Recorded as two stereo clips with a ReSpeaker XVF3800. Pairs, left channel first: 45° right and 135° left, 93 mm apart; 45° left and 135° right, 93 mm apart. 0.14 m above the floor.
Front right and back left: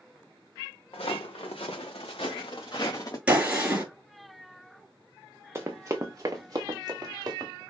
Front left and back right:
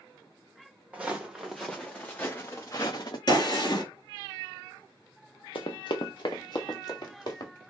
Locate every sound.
0.9 s footsteps: 60° right, 1.2 m; by 3.2 s 5° left, 1.0 m
3.3 s a gunshot: 60° left, 1.8 m
5.5 s running footsteps: 70° left, 0.6 m; by 7.5 s 90° left, 1.6 m